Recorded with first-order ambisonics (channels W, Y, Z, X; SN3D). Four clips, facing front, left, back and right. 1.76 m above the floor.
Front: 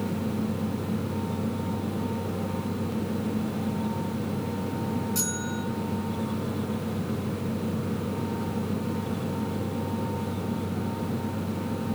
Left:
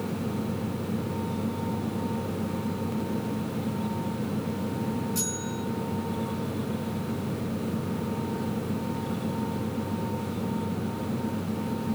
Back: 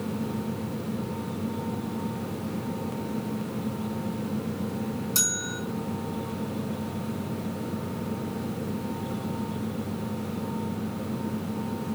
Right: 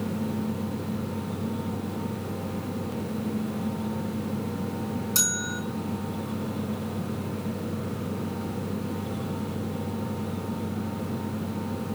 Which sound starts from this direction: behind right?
A bell, at 5.2 s.